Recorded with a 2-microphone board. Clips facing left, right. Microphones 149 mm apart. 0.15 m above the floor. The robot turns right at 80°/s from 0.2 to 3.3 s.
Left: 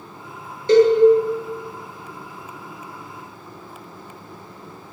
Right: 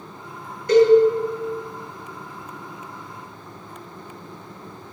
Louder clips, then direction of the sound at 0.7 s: Left 1 dB; 25° left (ahead or behind).